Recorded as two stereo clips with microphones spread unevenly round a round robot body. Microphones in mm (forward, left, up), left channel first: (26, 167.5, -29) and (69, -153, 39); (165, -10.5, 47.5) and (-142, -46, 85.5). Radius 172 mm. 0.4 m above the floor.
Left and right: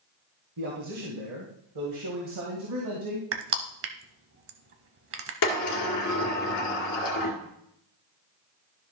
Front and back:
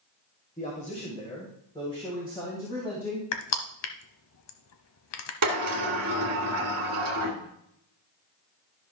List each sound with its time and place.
0.6 s a man speaking: 50° right, 1.8 m; by 3.2 s 70° right, 3 m
3.3 s crushing: 30° right, 1.0 m
5.4 s a sliding door: 140° left, 1.7 m